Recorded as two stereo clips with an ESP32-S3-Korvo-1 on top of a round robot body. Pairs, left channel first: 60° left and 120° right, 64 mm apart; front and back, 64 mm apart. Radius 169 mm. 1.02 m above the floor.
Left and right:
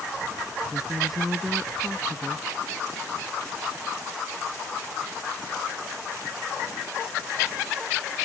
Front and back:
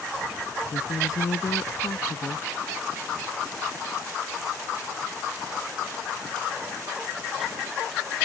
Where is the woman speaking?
35° right.